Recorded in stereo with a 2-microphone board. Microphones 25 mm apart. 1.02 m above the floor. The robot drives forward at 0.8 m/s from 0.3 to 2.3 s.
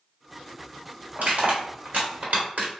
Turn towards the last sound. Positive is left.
turn(degrees=-75)  # may be behind; listen again after turning